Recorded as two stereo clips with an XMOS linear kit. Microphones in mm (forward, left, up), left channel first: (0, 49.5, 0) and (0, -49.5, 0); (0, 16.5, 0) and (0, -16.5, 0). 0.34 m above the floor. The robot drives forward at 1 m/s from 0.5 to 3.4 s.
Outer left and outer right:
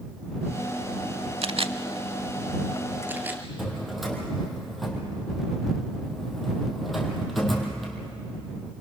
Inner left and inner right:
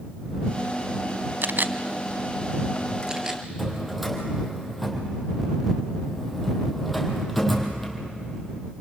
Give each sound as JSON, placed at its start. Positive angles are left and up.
{"t": 1.4, "sound": "a camera shutter", "side_deg": -85, "distance_m": 0.6}
{"t": 3.6, "sound": "a drawer", "side_deg": 0, "distance_m": 3.0}